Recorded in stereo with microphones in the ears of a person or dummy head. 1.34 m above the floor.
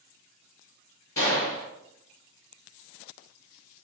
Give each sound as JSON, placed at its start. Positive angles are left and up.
{"t": 1.2, "sound": "a gunshot", "side_deg": 20, "distance_m": 1.4}